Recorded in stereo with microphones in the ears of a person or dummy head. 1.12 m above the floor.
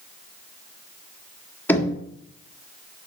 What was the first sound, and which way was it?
Knocking, 10° left (ahead or behind).